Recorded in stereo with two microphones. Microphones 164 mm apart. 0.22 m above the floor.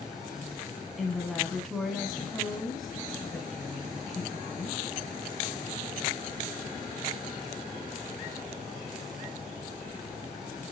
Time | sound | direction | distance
1.0 | a woman speaking | centre (ahead or behind) | 1.9 m